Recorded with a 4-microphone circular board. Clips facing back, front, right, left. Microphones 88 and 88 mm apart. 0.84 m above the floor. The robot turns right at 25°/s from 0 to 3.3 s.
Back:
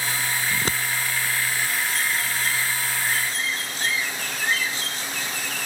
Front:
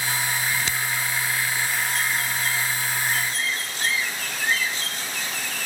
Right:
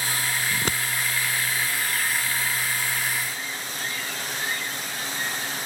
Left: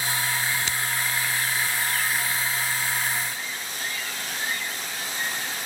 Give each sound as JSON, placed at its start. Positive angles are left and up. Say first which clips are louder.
{"t": 0.5, "sound": "scissors", "louder": "back 1 dB, right 1 dB", "azimuth_deg": -135}